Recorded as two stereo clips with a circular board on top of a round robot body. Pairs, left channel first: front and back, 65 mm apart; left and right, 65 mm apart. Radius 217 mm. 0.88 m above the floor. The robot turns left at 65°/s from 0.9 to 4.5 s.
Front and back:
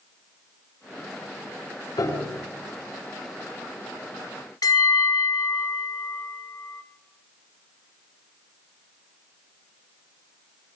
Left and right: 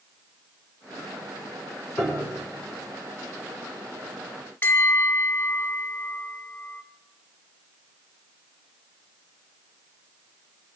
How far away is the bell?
About 1.6 m.